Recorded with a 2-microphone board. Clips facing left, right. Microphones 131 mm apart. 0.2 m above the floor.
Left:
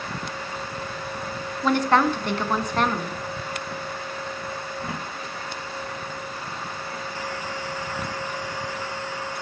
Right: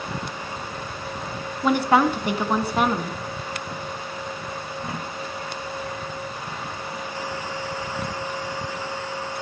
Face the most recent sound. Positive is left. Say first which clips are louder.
# right 1 dB
turn(degrees=-10)  # may be behind; listen again after turning